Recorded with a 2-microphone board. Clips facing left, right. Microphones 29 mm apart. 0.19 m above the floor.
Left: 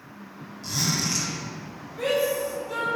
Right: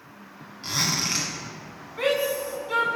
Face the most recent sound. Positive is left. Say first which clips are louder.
# even
turn(degrees=-40)  # may be behind; listen again after turning